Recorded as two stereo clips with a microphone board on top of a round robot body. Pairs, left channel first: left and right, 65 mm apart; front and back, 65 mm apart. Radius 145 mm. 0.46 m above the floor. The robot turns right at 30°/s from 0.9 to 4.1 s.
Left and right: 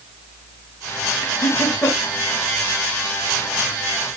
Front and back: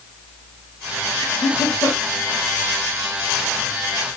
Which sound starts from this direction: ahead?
Laughter, at 1.2 s.